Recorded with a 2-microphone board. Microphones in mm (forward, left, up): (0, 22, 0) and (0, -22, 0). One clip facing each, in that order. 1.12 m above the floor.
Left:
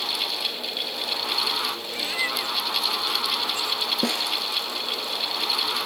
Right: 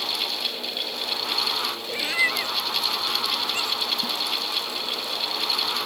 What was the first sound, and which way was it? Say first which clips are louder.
A cat meowing: right 7 dB; 20° right (ahead or behind).